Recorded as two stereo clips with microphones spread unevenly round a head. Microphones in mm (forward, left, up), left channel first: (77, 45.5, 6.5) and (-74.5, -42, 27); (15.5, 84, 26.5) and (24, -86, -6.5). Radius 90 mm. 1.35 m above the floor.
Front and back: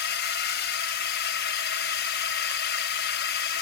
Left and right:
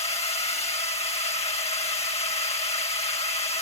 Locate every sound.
0.0 s a drone: 35° left